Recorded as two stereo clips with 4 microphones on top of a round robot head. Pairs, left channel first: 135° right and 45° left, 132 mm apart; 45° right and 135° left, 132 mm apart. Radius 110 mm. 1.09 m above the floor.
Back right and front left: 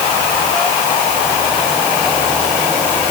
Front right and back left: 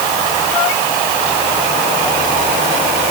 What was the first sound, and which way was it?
Only background noise.